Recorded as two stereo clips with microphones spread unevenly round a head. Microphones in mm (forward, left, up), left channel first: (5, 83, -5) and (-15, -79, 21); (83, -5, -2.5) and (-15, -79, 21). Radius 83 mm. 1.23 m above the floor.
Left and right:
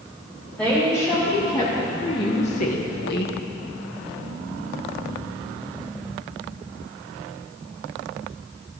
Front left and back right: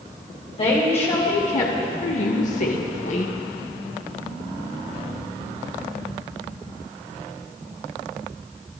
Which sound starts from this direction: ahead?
A woman speaking, at 0.6 s.